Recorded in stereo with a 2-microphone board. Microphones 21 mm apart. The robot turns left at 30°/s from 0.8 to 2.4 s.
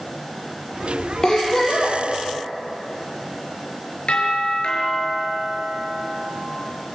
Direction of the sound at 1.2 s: 35° left (ahead or behind).